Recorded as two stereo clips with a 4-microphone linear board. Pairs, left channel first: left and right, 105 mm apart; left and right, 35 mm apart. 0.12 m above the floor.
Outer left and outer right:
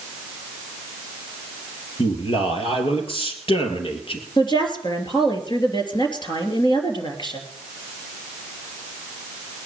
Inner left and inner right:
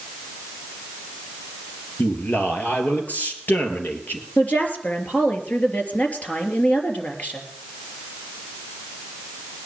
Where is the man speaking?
60° left (ahead or behind), 3 m.